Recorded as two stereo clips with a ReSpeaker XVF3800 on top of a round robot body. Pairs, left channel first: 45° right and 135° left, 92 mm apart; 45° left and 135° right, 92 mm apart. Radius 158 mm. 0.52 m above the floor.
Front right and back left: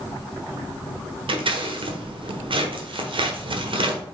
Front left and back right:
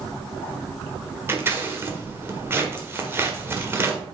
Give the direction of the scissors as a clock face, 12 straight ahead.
7 o'clock.